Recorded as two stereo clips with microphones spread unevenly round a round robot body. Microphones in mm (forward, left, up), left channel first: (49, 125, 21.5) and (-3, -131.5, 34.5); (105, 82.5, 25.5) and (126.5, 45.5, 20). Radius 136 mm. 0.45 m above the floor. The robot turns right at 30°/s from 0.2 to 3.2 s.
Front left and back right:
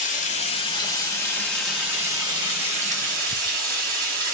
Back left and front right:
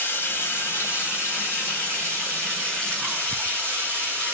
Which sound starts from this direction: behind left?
Running water, at 0.0 s.